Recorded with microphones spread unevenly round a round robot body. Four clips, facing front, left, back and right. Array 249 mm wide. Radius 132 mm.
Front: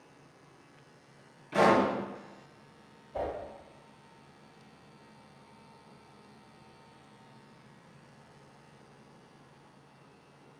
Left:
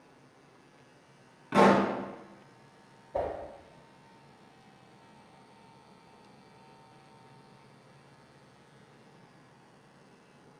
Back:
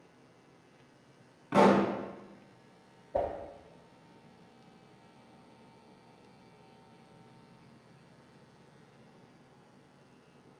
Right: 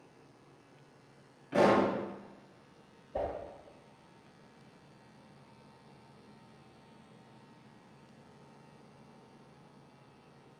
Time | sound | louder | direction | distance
1.5 | a pop | left 3 dB, even | 145° left | 2.5 m
3.1 | a whoosh | left 3 dB, back 3 dB | straight behind | 2.5 m